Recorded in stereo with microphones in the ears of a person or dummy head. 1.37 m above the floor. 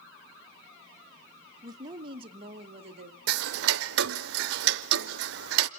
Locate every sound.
1.6 s a woman speaking: 25° right (ahead or behind), 0.9 m; by 3.2 s 45° right (ahead or behind), 1.7 m
3.3 s ticking: 70° right (ahead or behind), 0.5 m